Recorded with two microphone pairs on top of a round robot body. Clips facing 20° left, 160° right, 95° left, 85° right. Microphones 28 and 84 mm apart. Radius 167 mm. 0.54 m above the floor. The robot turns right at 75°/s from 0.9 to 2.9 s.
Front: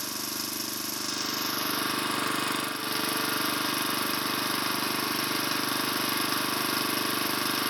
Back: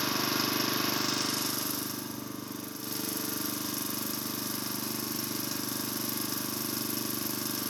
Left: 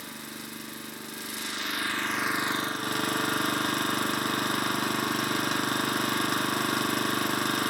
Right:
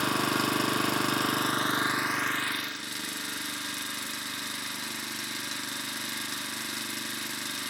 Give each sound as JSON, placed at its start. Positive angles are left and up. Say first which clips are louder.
{"t": 0.0, "sound": "an engine running", "louder": "back 5 dB, right 14 dB", "azimuth_deg": -90, "distance_m": 0.9}